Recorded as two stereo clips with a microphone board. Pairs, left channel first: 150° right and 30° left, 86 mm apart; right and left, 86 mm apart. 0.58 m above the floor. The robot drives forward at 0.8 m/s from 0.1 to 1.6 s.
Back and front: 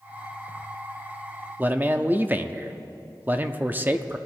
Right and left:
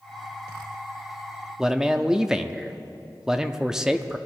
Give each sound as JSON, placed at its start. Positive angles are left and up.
{"t": 1.6, "sound": "a man speaking", "azimuth_deg": 20, "distance_m": 0.6}